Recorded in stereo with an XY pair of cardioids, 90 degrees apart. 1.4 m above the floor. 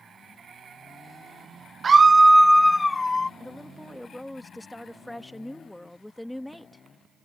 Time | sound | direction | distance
1.8 | a scream | 40° right | ?
3.4 | a woman speaking | 10° left | ?